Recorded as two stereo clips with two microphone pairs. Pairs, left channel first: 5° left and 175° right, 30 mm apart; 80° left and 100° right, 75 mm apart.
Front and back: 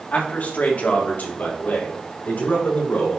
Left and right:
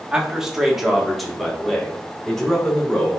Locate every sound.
0.1 s a man speaking: 20° right, 2 m; by 3.2 s straight ahead, 4 m